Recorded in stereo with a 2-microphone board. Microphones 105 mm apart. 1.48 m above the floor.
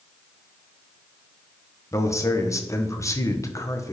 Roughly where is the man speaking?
Left.